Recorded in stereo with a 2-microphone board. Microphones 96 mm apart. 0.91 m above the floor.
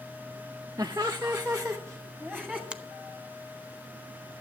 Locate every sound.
0.8 s laughter: 40° right (ahead or behind), 0.6 m; by 2.6 s 5° right (ahead or behind), 1.7 m
2.7 s a finger snap: 10° right (ahead or behind), 0.7 m